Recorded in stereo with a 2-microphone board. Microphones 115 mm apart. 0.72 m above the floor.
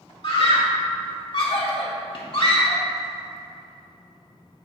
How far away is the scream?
About 1.9 m.